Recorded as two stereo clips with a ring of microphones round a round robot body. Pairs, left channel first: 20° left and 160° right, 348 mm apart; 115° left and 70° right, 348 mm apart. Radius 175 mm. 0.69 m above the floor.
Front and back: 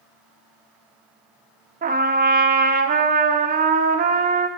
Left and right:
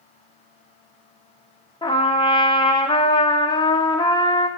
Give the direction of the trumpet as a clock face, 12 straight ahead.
6 o'clock.